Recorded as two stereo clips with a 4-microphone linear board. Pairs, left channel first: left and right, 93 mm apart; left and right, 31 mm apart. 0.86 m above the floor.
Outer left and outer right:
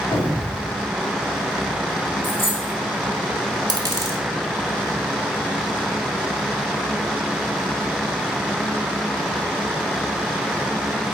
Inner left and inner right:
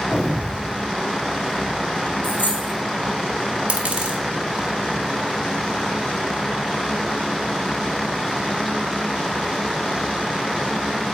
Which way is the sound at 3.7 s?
40° right (ahead or behind).